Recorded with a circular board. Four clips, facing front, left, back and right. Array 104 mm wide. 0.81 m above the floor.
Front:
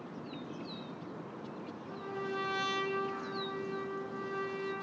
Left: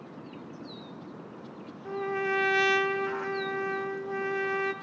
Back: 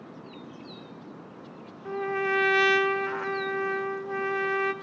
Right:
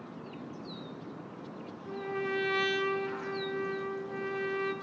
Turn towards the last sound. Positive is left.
turn(degrees=160)